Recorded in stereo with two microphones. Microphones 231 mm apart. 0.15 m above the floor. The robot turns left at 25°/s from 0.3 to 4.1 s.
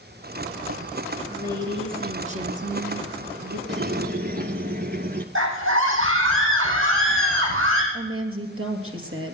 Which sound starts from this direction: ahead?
A woman speaking, at 1.3 s.